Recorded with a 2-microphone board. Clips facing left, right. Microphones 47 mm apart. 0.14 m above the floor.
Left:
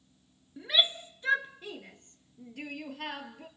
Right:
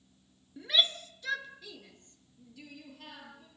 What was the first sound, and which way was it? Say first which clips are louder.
A shout: left 1 dB; 10° left (ahead or behind).